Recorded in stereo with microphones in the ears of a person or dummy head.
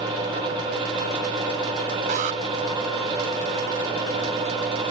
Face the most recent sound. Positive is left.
turn(degrees=-45)  # may be behind; listen again after turning